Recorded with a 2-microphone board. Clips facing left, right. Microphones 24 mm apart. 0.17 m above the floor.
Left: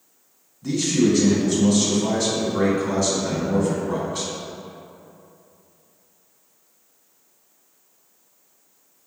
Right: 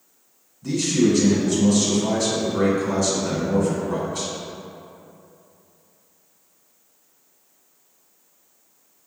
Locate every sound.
0.6 s a man speaking: 15° left (ahead or behind), 1.3 m